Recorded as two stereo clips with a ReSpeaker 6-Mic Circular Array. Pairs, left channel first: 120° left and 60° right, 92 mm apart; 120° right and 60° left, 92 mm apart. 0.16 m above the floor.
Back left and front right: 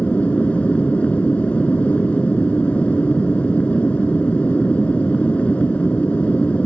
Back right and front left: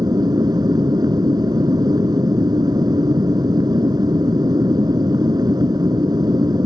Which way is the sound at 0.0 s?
50° left.